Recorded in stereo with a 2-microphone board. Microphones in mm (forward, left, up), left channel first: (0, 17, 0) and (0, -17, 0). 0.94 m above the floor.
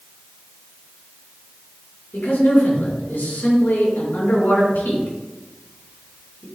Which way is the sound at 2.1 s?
75° left (ahead or behind).